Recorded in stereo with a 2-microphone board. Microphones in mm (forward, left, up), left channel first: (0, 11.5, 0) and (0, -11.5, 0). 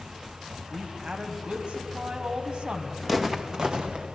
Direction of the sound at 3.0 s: 10° right (ahead or behind).